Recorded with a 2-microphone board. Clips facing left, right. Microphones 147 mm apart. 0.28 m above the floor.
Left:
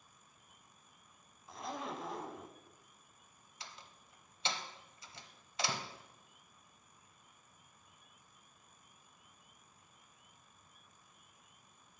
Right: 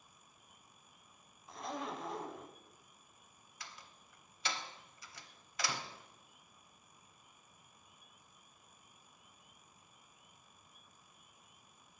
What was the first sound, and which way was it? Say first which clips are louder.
A zipper: even; centre (ahead or behind).